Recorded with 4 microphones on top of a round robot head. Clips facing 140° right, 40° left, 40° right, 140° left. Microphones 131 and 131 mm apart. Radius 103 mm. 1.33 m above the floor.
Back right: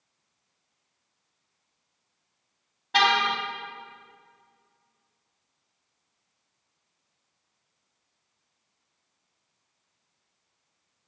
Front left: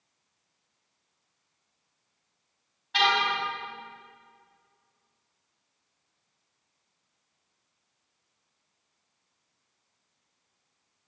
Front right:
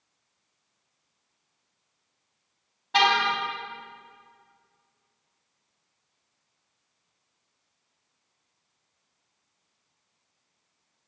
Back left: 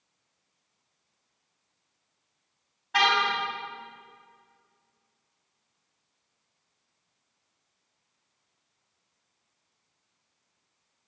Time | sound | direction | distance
2.9 | a car horn | 100° right | 4 m